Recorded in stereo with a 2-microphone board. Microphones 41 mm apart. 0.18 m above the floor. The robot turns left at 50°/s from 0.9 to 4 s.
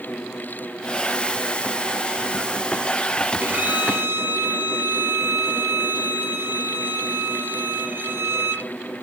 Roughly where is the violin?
Right.